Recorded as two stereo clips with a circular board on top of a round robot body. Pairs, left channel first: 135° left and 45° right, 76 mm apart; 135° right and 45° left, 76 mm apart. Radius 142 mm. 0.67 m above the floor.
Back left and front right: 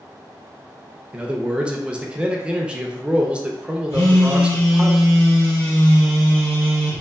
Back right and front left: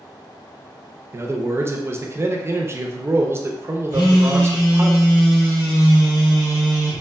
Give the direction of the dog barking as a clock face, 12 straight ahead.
No dog barking in this recording.